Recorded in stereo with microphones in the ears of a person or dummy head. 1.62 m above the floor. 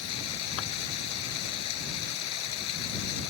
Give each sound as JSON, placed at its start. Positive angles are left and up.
{"t": 0.0, "sound": "running water", "side_deg": 90}